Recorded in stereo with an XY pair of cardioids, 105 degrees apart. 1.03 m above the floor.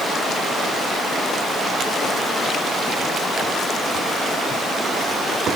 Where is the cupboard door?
I don't hear a cupboard door.